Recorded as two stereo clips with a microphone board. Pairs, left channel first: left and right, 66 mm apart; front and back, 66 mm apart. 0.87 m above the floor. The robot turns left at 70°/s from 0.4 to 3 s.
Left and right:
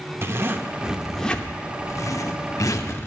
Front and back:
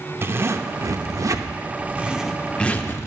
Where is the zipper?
135° right, 0.7 m; by 3.1 s 45° left, 0.7 m.